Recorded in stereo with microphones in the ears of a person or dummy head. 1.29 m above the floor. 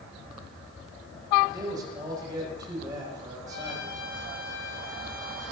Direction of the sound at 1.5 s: 25° right (ahead or behind).